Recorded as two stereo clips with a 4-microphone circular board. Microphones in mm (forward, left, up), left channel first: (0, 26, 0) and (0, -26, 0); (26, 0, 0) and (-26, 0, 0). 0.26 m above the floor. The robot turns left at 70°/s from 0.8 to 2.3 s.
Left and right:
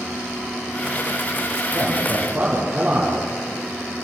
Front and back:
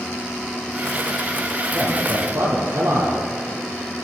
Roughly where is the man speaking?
Behind right.